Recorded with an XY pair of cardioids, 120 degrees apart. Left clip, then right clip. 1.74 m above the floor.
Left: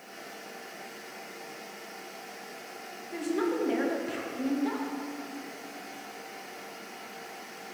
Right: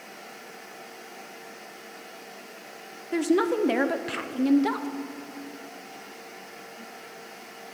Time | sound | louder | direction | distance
3.1 | a woman speaking | right 6 dB | 55° right | 0.8 m